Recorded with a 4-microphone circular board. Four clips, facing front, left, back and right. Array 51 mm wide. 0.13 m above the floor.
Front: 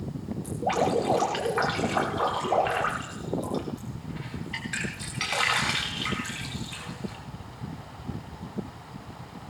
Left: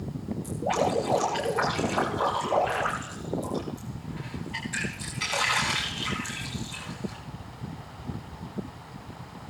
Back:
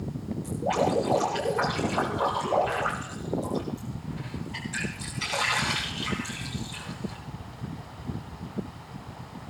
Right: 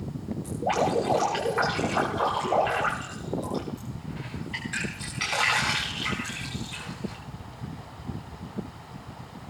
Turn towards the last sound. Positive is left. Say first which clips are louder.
# right 1 dB, even
turn(degrees=-35)